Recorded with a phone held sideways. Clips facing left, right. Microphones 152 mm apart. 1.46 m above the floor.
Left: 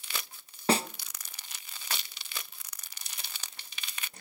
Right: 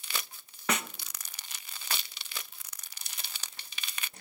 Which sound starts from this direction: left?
A snare drum, at 0.7 s.